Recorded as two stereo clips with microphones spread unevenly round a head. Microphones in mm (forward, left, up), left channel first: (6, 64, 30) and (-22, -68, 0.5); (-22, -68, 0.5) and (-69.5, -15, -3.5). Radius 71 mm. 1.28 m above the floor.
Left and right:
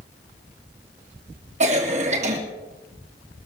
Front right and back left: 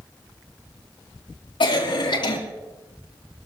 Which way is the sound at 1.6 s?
60° right.